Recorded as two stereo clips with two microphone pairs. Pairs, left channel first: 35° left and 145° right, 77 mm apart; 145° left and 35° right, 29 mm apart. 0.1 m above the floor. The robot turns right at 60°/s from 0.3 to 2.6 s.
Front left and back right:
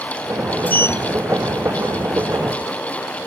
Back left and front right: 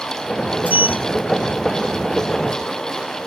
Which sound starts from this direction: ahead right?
A sliding door, at 0.7 s.